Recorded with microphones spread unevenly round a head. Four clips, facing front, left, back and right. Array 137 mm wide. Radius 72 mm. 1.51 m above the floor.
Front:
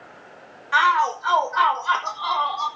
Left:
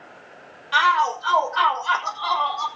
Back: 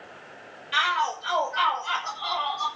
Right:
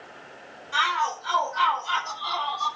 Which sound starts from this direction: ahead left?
A shout, at 0.7 s.